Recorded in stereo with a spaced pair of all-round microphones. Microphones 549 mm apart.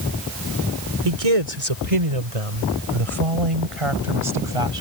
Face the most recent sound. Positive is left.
turn(degrees=-70)  # may be behind; listen again after turning